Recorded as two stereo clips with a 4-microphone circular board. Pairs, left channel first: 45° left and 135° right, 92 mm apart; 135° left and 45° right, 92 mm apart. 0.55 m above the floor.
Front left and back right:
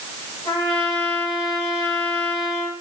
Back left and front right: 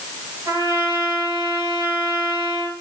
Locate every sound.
0.5 s a trumpet: 5° left, 9 m